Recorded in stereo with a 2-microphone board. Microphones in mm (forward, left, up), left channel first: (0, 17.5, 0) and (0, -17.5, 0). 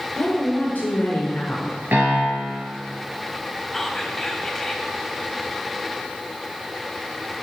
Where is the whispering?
5° left (ahead or behind), 1.2 m.